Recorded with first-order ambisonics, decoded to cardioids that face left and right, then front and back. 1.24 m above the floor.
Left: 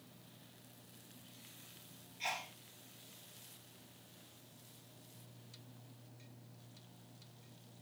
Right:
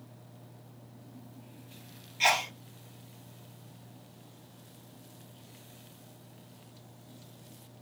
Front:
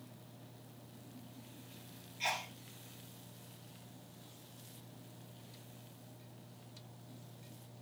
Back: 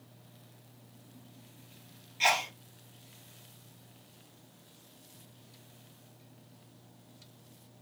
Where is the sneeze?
130° right, 0.7 m.